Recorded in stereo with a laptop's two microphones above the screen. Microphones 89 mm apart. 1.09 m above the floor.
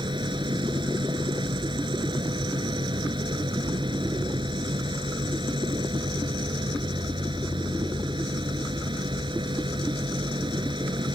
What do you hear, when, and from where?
0.0 s a machine running: 65° right (ahead or behind)